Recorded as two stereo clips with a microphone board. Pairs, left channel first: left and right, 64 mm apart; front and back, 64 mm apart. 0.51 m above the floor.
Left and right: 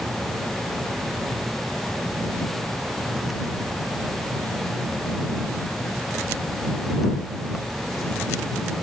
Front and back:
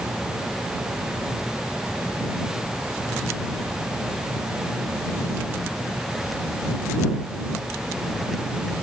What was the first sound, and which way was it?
Only background noise.